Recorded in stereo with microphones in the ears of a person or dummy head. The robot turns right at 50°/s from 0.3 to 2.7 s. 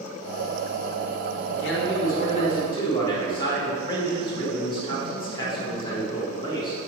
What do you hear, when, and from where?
1.5 s a man speaking: 85° left, 1.9 m; by 6.8 s 145° left, 1.9 m